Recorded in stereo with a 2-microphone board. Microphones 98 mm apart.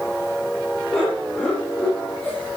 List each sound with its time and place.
0.9 s laughter: 5° left (ahead or behind), 5 m